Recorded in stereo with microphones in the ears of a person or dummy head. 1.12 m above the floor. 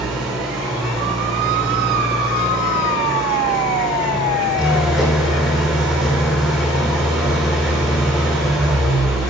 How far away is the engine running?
About 4 m.